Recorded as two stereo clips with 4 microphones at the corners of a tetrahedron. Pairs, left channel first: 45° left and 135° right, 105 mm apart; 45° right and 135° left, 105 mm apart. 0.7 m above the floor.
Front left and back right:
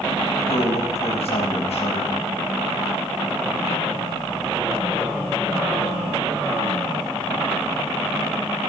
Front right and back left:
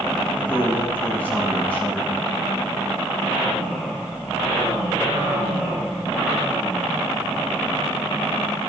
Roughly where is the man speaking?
Ahead left.